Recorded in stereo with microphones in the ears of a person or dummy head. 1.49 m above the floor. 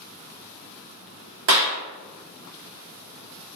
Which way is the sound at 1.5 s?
45° right (ahead or behind).